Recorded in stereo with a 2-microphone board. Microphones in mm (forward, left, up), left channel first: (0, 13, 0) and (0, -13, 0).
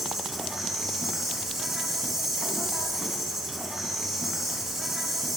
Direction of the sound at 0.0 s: 10° right (ahead or behind).